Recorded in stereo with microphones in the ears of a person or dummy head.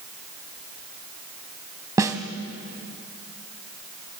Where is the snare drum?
15° right (ahead or behind), 1.6 m.